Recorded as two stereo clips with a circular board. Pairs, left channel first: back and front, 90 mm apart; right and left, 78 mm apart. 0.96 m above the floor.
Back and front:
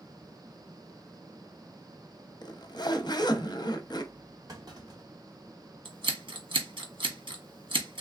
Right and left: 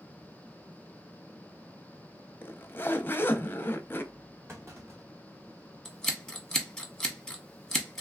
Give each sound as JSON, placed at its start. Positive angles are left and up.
{"t": 2.4, "sound": "a zipper", "azimuth_deg": -150, "distance_m": 0.5}
{"t": 4.5, "sound": "a clunk", "azimuth_deg": 40, "distance_m": 1.8}
{"t": 5.8, "sound": "scissors", "azimuth_deg": -5, "distance_m": 1.1}